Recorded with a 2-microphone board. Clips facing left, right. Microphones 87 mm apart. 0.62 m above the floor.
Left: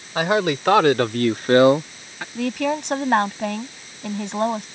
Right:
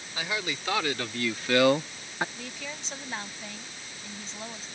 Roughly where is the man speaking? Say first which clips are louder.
Left 14 dB; left.